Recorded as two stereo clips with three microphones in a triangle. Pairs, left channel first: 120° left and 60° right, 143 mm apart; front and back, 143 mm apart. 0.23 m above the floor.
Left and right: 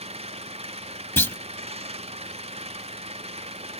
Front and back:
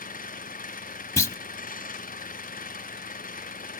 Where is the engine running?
15° right.